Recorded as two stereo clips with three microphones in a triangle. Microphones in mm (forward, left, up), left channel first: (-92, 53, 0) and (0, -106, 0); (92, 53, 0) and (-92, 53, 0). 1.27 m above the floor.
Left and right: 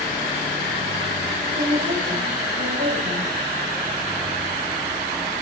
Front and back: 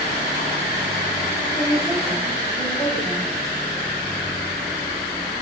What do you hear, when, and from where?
1.6 s a woman speaking: 70° right, 7.5 m